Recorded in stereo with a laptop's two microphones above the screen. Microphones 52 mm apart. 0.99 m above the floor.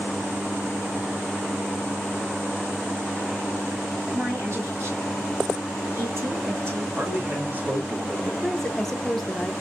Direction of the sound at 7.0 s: 35° right (ahead or behind).